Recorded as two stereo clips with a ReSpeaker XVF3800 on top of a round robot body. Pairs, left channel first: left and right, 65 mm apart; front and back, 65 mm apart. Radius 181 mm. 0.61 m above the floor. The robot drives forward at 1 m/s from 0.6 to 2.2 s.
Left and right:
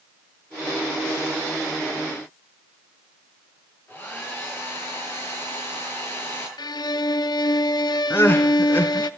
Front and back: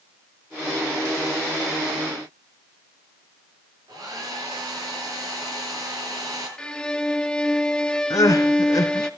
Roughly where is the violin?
Left.